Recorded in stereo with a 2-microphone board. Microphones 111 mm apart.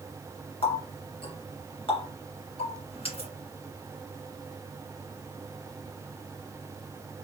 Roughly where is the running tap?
Left.